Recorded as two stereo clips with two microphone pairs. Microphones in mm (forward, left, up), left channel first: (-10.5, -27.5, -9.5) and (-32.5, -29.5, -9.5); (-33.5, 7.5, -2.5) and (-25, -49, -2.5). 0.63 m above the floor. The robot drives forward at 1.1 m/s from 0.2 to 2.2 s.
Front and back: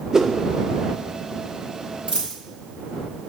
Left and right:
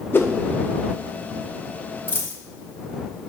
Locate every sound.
0.1 s a whoosh: 135° left, 0.7 m; by 0.3 s 145° left, 0.8 m
2.1 s a dropped coin: 150° left, 3 m; by 2.4 s 155° left, 3 m